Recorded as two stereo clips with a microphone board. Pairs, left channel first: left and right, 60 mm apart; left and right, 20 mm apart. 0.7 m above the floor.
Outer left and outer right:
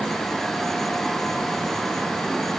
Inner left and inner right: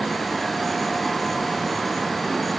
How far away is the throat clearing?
I don't hear throat clearing.